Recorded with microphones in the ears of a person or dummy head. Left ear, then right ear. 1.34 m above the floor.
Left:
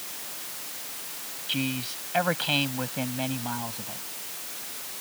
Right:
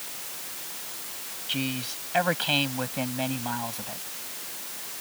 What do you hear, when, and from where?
1.5 s a man speaking: 10° right (ahead or behind); by 4.0 s 20° right (ahead or behind)